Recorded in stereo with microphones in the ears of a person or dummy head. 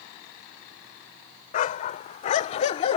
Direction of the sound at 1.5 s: 45° left (ahead or behind).